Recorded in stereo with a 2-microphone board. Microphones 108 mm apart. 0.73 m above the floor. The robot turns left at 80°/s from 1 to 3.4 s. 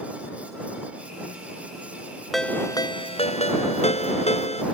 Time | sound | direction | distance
2.3 | a ringtone | straight behind | ?